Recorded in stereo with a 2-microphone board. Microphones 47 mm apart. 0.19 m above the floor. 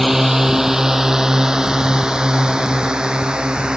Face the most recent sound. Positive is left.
turn(degrees=-15)  # may be behind; listen again after turning